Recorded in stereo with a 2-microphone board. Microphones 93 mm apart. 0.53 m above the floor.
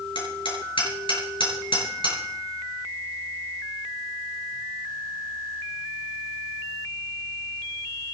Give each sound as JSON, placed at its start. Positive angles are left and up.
{"t": 0.1, "sound": "hammering", "side_deg": 70, "distance_m": 6.0}